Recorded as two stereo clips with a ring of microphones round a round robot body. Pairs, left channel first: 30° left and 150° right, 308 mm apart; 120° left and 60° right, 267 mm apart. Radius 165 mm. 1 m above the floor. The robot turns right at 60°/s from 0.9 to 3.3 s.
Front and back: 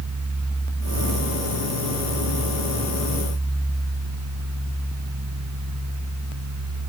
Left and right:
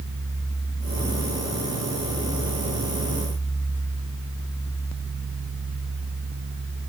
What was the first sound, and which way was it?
Only background noise.